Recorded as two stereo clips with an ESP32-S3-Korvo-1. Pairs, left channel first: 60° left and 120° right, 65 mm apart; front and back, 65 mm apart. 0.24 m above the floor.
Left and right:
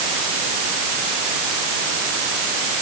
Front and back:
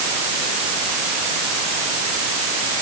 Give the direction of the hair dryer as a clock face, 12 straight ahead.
I don't hear a hair dryer.